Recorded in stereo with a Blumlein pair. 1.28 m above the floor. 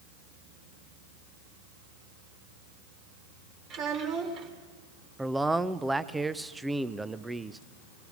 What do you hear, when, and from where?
3.7 s a child speaking: 35° right, 3 m
5.2 s a man speaking: 5° right, 0.5 m